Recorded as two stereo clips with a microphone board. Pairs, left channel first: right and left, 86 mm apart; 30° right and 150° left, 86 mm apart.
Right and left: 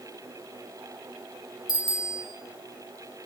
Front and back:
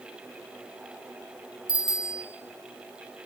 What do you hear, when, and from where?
1.7 s a bicycle bell: 135° right, 3.5 m